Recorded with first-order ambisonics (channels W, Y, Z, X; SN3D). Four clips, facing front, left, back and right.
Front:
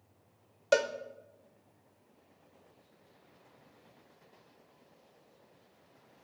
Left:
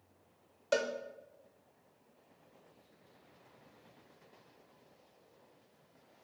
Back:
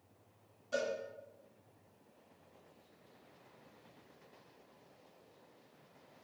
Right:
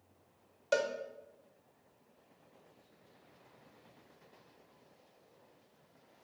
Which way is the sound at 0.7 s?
Straight ahead.